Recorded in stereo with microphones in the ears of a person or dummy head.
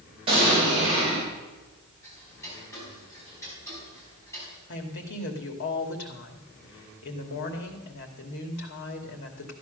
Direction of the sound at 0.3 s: 25° right (ahead or behind).